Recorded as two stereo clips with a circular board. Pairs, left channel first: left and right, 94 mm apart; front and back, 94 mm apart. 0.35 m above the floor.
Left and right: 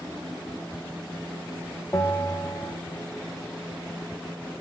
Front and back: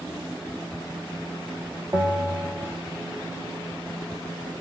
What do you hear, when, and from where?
1.9 s a bell: 130° left, 0.7 m